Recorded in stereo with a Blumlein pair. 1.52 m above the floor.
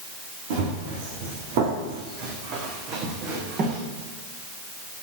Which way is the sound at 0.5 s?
55° right.